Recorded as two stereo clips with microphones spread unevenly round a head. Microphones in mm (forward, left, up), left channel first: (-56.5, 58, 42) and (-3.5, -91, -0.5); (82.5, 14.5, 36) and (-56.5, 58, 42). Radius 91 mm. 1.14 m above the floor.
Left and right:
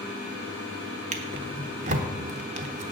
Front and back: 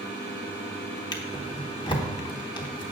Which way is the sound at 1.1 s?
50° right.